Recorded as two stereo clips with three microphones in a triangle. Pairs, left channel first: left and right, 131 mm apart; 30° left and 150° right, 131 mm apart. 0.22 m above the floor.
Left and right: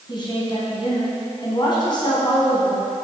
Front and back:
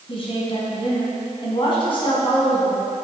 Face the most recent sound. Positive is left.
turn(degrees=55)